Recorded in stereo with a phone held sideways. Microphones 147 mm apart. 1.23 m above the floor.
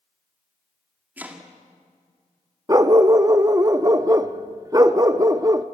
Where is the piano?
I don't hear a piano.